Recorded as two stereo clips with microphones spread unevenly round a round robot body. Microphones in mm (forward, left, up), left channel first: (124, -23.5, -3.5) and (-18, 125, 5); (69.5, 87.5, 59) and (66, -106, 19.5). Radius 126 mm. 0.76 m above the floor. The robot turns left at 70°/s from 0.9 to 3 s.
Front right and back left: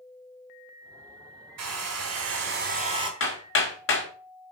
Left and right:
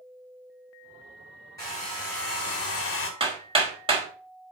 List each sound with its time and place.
1.6 s a hair dryer: 170° left, 3.5 m; by 3.1 s 70° left, 3.5 m
3.2 s hammering: 30° right, 4 m